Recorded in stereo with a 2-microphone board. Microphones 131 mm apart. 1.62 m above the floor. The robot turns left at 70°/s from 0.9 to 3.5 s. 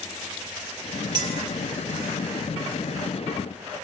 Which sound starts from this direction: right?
A clink, at 1.1 s.